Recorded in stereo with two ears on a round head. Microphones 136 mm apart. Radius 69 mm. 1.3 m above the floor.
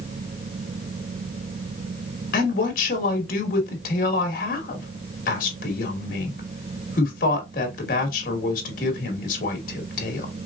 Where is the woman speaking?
65° left (ahead or behind), 1.8 m.